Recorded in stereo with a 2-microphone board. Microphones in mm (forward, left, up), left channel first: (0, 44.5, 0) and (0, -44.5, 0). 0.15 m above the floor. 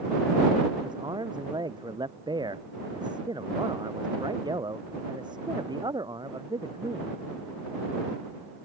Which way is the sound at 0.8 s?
50° right (ahead or behind).